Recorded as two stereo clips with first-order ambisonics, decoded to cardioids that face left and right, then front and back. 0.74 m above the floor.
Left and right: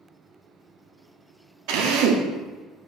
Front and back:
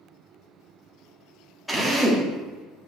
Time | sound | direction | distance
1.7 | a drill | 90° right | 0.6 m